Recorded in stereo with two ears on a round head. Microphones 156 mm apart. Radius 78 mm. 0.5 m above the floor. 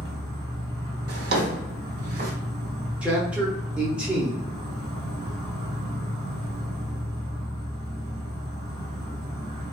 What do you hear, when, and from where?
0.0 s an insect: 25° right (ahead or behind), 1.1 m
1.1 s a drawer: 60° right (ahead or behind), 0.9 m
3.0 s a man speaking: 5° right (ahead or behind), 0.7 m